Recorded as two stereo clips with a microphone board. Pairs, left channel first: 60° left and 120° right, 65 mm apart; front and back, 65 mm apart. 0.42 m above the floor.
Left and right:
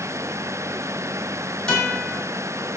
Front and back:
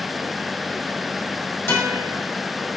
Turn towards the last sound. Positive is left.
turn(degrees=-10)